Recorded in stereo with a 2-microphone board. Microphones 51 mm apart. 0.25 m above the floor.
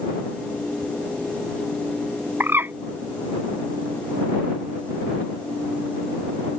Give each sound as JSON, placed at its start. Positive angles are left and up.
{"t": 2.4, "sound": "a bird", "side_deg": -45}